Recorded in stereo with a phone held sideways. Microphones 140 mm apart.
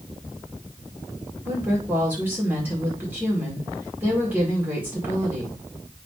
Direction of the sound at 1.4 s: 15° right (ahead or behind).